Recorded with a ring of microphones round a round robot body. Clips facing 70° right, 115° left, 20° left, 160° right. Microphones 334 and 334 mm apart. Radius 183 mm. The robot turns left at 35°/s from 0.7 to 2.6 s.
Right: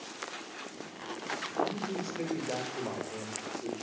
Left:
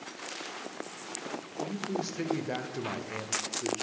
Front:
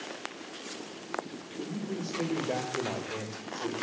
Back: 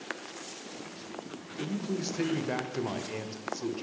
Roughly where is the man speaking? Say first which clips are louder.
Even, back 2 dB; behind.